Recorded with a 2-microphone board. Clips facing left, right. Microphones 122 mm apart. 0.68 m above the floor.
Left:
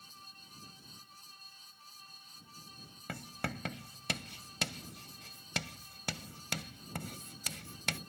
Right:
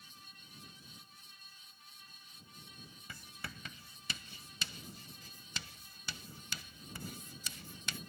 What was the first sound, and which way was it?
Writing, 70° left (ahead or behind).